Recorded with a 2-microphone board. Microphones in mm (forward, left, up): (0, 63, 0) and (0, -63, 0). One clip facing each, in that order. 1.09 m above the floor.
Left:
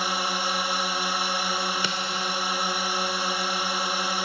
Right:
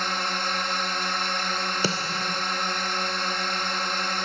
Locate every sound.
0.0 s a drone: 10° left (ahead or behind)
1.8 s a snare drum: 40° right (ahead or behind)